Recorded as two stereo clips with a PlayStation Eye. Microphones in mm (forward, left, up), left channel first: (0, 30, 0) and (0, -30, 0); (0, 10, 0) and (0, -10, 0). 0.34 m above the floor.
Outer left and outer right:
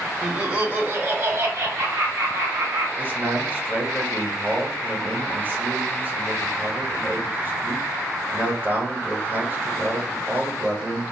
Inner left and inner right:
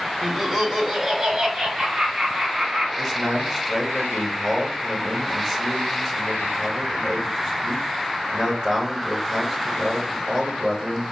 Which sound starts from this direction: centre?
Laughter, at 0.2 s.